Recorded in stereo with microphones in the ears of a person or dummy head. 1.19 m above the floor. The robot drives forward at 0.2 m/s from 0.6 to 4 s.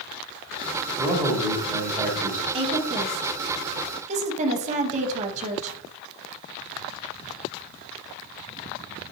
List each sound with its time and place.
1.0 s a man speaking: 15° right (ahead or behind), 1.1 m; by 2.4 s 10° right (ahead or behind), 1.3 m
2.5 s a woman speaking: 30° right (ahead or behind), 0.9 m; by 5.8 s 35° right (ahead or behind), 0.8 m